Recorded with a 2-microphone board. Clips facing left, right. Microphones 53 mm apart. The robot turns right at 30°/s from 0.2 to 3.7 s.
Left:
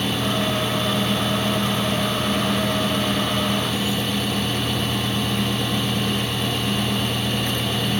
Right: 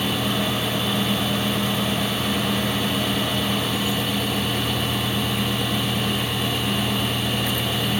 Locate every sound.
Only background noise.